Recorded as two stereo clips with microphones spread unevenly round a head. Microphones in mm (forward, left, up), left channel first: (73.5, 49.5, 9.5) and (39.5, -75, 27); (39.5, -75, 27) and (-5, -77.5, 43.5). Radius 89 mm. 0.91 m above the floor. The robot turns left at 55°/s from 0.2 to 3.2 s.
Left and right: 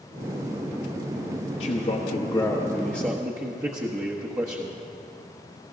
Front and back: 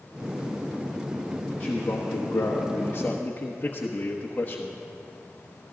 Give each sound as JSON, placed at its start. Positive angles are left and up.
{"t": 1.6, "sound": "a man speaking", "azimuth_deg": 50, "distance_m": 1.2}